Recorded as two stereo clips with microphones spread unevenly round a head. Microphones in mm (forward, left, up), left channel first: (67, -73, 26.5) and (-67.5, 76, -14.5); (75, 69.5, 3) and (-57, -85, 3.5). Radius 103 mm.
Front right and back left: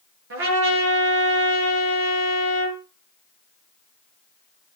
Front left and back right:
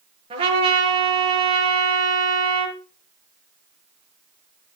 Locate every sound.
0.3 s a trumpet: 165° left, 6.5 m